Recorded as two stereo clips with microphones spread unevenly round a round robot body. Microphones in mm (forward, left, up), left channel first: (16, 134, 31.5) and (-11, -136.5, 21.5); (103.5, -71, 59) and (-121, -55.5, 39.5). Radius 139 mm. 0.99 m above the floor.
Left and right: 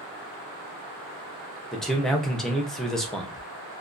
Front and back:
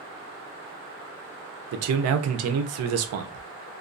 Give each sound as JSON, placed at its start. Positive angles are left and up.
{"t": 1.7, "sound": "a man speaking", "azimuth_deg": 175, "distance_m": 0.5}